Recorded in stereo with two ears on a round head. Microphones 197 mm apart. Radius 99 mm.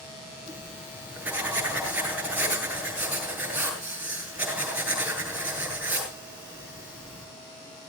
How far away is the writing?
About 8.5 m.